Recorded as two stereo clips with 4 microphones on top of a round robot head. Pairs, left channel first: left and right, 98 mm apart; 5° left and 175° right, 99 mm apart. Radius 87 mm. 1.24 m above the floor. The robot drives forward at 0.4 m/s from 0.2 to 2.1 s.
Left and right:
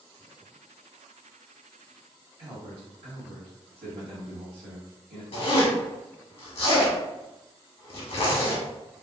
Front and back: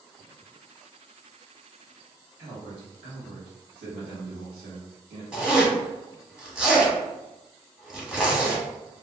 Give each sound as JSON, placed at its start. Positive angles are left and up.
{"t": 2.4, "sound": "a man speaking", "azimuth_deg": -135, "distance_m": 1.4}
{"t": 5.3, "sound": "a zipper", "azimuth_deg": 105, "distance_m": 1.1}